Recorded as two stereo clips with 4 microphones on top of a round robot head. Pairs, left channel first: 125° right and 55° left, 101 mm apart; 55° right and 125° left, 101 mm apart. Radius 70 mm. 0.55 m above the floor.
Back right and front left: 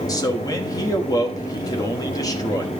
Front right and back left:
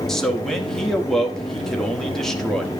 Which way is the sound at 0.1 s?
140° right.